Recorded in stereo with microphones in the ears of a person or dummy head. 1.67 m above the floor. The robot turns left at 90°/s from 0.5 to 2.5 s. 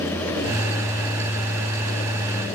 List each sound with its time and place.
Only background noise.